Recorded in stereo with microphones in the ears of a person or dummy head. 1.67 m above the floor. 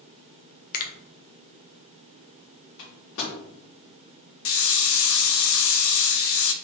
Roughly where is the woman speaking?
No woman speaking in this recording.